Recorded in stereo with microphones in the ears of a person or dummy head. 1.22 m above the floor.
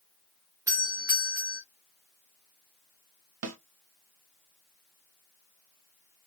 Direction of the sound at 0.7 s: 15° right (ahead or behind).